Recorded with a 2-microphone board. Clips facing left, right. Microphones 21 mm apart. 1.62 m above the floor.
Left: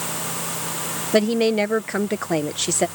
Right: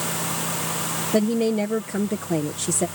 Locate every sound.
1.1 s a woman speaking: 40° left (ahead or behind)